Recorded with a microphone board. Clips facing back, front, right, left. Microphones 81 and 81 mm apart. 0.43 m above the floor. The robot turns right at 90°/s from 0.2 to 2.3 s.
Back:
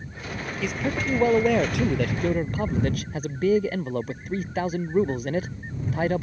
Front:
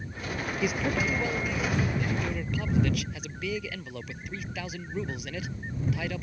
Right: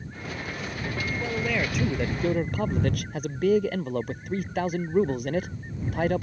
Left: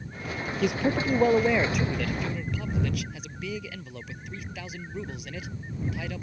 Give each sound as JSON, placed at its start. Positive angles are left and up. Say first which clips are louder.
{"t": 0.6, "sound": "a man speaking", "louder": "back 1 dB, left 10 dB", "azimuth_deg": 75}